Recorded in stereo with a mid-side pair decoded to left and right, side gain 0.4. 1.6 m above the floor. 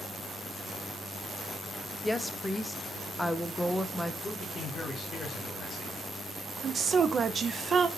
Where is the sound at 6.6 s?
50° right, 0.5 m.